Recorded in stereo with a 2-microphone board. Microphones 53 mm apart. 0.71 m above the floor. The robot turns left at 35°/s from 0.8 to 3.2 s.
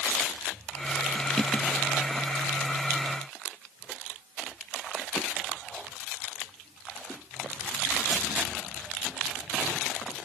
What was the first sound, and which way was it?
Only background noise.